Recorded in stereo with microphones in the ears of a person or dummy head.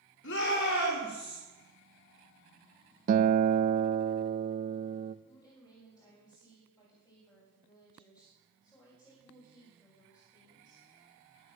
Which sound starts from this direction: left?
A shout, at 0.2 s.